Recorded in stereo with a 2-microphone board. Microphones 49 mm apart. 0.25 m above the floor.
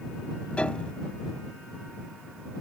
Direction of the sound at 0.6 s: 25° left (ahead or behind).